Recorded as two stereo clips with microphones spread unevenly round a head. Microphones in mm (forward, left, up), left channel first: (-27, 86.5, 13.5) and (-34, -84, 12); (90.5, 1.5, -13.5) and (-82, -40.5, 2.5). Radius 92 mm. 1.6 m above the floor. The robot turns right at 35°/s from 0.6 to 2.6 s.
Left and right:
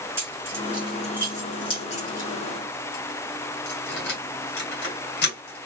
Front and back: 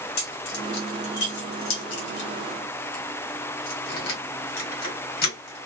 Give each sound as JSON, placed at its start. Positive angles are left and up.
{"t": 0.2, "sound": "keys jangling", "azimuth_deg": -15, "distance_m": 1.4}